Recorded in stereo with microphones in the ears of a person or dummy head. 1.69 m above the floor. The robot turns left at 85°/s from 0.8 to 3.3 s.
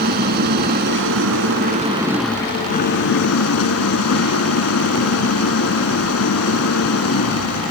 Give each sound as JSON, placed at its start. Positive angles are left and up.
{"t": 0.0, "sound": "an engine running", "azimuth_deg": -55}